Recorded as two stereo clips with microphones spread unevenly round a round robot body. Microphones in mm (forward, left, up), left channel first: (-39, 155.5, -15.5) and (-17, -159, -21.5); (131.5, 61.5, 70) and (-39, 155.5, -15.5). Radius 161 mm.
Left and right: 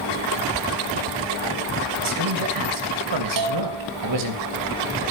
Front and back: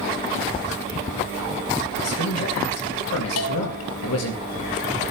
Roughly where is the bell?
Ahead right.